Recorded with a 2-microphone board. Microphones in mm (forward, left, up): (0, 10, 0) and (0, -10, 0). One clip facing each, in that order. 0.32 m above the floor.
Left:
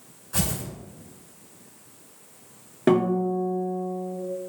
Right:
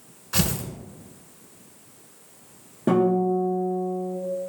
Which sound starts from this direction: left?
A guitar, at 2.9 s.